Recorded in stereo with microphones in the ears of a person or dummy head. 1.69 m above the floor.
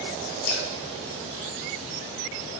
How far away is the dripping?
About 4.5 m.